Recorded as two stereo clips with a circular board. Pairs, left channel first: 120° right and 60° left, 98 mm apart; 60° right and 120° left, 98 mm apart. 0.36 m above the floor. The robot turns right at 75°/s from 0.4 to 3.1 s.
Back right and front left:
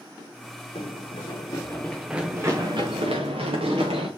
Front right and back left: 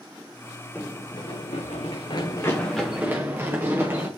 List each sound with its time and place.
0.8 s running footsteps: 135° right, 1.2 m; by 4.1 s 55° left, 3.5 m